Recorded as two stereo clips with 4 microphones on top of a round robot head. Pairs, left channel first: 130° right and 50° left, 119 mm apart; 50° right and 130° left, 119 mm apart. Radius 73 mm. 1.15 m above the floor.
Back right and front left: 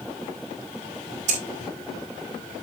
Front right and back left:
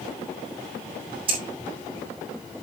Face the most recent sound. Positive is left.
turn(degrees=80)